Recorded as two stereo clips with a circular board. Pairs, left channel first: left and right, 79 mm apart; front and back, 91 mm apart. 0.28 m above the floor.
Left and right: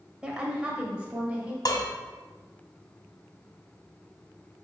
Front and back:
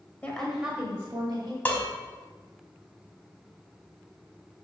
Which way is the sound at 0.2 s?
35° right.